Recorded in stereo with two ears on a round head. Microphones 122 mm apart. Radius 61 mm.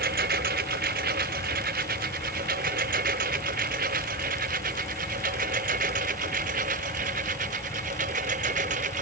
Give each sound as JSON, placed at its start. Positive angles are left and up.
{"t": 0.0, "sound": "a lawn mower", "side_deg": -70}